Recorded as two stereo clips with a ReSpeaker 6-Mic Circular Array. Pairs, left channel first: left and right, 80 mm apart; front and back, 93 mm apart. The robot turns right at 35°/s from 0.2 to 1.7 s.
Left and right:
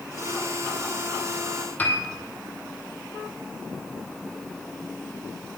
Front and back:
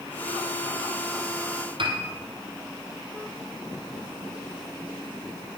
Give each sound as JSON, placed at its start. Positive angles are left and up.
{"t": 1.8, "sound": "a piano", "azimuth_deg": 155, "distance_m": 1.8}